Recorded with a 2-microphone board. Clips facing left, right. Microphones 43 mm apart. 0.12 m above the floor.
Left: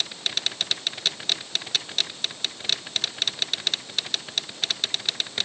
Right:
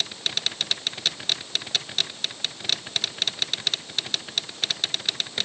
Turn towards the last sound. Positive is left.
No sound to turn to.